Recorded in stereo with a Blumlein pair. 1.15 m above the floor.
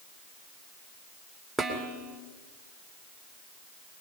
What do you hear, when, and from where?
1.6 s dishes clattering: 10° right, 2.5 m